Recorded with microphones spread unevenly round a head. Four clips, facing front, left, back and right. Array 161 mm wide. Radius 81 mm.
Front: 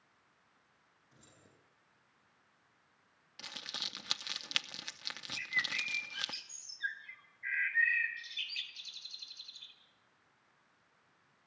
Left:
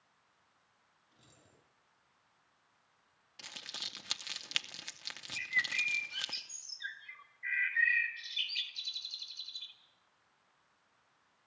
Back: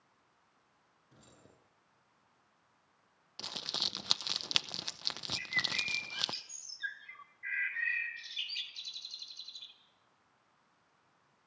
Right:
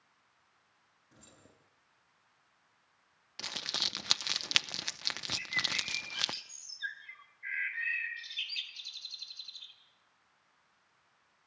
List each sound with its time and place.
1.1 s keys jangling: 140° right, 9.5 m
3.4 s crumpling: 120° right, 0.7 m
5.3 s a bird: 160° left, 1.7 m